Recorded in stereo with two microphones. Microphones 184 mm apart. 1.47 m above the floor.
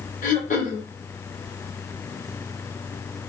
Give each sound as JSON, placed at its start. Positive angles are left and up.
{"t": 0.2, "sound": "throat clearing", "side_deg": 45, "distance_m": 1.5}